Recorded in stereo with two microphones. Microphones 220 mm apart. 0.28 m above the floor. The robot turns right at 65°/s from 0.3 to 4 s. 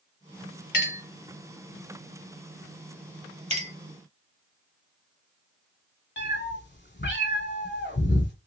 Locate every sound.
0.7 s a clink: 50° left (ahead or behind), 1.2 m; by 1.0 s 35° left (ahead or behind), 1.2 m
3.5 s a clink: 30° right (ahead or behind), 0.7 m; by 3.7 s 25° right (ahead or behind), 0.7 m
6.2 s a cat meowing: 55° left (ahead or behind), 0.8 m